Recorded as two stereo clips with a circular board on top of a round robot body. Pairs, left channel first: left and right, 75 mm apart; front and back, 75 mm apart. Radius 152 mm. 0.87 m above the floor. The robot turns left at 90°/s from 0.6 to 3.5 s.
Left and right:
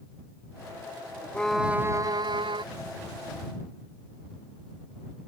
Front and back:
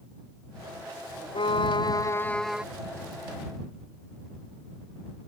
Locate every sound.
1.3 s a violin: 15° left; by 2.6 s 105° right